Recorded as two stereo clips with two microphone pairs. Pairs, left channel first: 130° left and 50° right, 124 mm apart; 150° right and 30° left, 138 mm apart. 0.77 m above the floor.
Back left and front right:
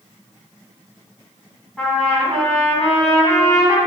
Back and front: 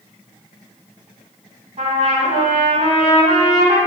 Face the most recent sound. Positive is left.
turn(degrees=35)